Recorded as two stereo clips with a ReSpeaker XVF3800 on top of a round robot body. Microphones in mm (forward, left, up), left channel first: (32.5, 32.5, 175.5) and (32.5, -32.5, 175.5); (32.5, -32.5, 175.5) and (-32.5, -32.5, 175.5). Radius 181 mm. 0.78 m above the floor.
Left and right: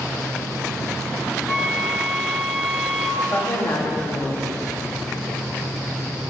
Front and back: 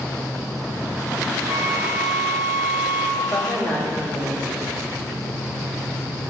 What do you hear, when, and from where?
1.5 s a flute: 5° right, 2 m
3.2 s a woman speaking: 60° left, 2.5 m